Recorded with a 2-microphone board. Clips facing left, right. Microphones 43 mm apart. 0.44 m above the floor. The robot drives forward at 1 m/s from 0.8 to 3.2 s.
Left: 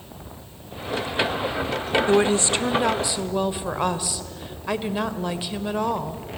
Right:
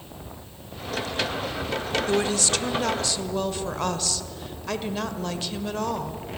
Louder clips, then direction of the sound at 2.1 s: Left 5 dB; 25° left (ahead or behind).